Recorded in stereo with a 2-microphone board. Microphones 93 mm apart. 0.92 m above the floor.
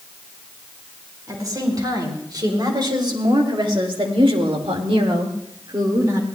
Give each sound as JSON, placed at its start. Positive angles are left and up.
{"t": 1.3, "sound": "a woman speaking", "side_deg": -40, "distance_m": 4.5}